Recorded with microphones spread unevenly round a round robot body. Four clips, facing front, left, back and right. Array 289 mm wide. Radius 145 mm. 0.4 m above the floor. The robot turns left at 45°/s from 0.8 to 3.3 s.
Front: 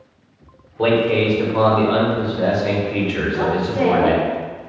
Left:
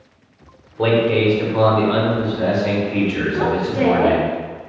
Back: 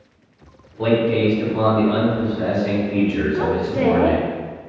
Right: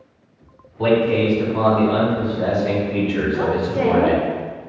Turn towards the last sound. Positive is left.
turn(degrees=-165)